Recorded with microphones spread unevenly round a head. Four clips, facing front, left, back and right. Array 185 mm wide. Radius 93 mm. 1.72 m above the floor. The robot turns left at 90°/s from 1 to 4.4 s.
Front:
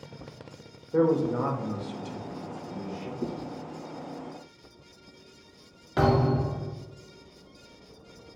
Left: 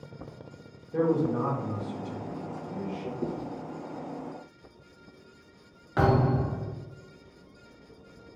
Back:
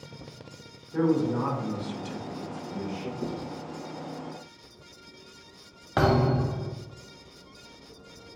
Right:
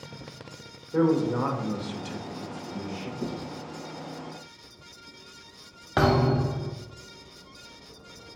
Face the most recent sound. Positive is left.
turn(degrees=-140)